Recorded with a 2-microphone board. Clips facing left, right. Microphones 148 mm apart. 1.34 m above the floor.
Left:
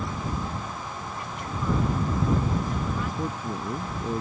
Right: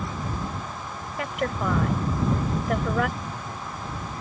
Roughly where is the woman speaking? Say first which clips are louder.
Right 8 dB; right.